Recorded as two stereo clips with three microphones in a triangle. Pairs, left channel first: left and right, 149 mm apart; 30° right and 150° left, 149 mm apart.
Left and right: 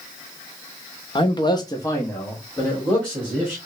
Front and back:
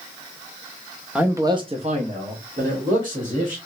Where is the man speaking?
70° left, 0.7 m; by 3.6 s 175° left, 2 m.